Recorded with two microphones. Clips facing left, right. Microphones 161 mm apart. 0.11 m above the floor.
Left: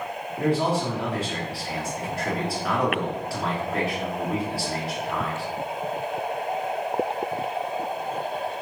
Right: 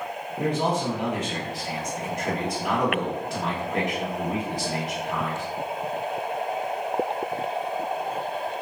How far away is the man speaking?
About 1.1 m.